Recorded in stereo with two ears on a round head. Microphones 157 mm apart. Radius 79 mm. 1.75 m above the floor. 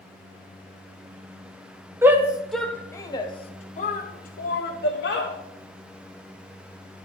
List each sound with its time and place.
2.0 s a shout: 15° right (ahead or behind), 1.1 m; by 5.3 s 70° left (ahead or behind), 1.6 m